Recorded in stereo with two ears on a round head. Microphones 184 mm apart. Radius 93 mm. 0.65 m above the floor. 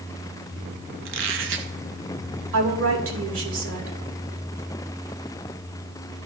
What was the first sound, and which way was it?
A squeak, 70° right (ahead or behind).